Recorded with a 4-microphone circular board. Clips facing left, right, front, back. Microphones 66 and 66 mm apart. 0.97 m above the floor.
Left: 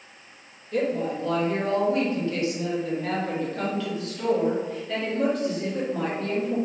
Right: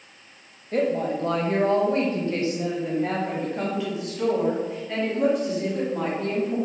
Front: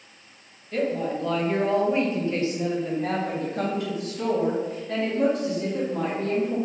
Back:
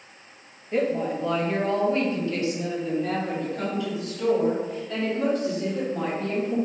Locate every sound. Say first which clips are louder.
0.7 s a woman speaking: right 2 dB, back 1 dB; 120° right, 1.0 m; by 6.5 s straight ahead, 2.5 m